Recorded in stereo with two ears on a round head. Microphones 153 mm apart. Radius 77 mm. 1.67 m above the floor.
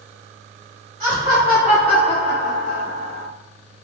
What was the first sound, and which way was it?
Laughter, 25° right (ahead or behind).